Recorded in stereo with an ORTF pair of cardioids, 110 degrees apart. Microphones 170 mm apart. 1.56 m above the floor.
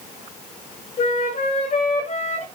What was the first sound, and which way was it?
A flute, 45° left.